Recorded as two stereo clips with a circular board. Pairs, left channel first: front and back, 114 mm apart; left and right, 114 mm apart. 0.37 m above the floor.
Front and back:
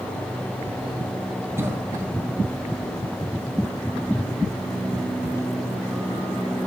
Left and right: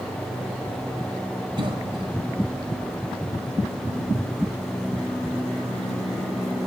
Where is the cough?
120° right, 1.8 m.